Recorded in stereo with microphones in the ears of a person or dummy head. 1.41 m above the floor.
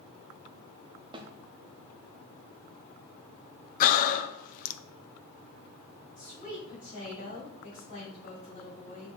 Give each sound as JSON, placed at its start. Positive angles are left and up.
{"t": 1.1, "sound": "a snare drum", "side_deg": -20, "distance_m": 0.6}
{"t": 3.8, "sound": "breathing", "side_deg": 50, "distance_m": 0.5}
{"t": 6.2, "sound": "a woman speaking", "side_deg": 40, "distance_m": 3.5}